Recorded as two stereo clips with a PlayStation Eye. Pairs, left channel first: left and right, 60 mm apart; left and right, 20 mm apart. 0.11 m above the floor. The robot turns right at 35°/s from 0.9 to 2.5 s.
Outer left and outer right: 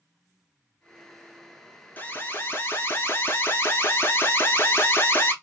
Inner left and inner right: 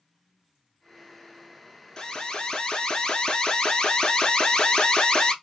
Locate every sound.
2.0 s an alarm: 30° left (ahead or behind), 1.0 m; by 5.3 s 40° left (ahead or behind), 1.0 m